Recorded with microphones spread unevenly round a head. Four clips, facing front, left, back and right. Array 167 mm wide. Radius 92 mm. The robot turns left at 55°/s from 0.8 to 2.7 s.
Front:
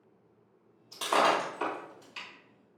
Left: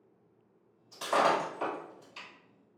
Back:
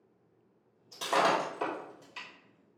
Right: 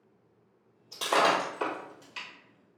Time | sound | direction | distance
0.9 | breaking glass | 100° right | 1.8 m